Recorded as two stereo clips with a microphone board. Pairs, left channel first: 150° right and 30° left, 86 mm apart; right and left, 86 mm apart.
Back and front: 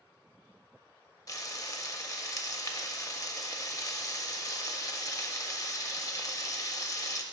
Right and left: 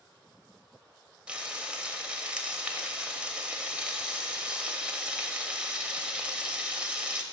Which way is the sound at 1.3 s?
165° left.